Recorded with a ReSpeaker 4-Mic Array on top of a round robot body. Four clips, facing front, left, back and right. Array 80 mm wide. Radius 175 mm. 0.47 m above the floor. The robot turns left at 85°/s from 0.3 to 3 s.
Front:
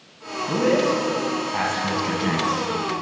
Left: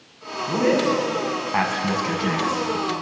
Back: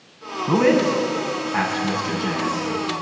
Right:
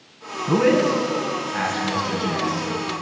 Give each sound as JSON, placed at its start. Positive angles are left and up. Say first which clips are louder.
{"t": 0.5, "sound": "a man speaking", "louder": "right 2 dB, back 3 dB", "azimuth_deg": -170, "distance_m": 6.5}